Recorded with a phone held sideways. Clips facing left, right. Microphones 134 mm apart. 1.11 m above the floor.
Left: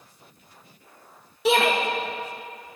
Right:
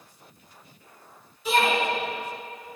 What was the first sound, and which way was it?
A shout, 75° left (ahead or behind).